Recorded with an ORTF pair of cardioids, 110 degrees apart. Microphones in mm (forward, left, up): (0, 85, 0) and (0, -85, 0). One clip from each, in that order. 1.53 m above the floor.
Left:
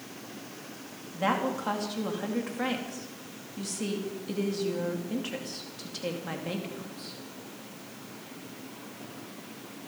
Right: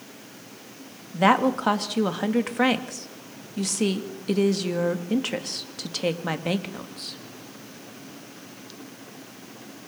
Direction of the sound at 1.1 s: 55° right.